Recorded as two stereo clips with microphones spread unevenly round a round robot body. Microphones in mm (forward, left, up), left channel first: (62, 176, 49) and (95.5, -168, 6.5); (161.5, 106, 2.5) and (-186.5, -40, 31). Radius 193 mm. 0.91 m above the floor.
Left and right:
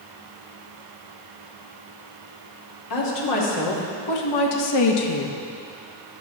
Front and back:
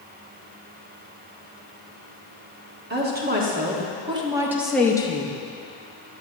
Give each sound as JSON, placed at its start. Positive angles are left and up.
{"t": 2.9, "sound": "a woman speaking", "azimuth_deg": 140, "distance_m": 1.9}